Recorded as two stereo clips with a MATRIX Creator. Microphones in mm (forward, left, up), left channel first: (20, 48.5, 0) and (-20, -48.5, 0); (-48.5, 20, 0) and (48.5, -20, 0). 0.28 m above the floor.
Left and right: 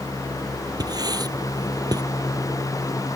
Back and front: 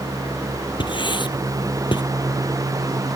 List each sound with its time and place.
0.8 s writing: 165° right